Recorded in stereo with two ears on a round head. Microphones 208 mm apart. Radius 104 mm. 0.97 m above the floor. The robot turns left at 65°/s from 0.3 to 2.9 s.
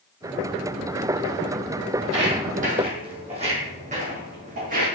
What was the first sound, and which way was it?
Footsteps, 60° right (ahead or behind).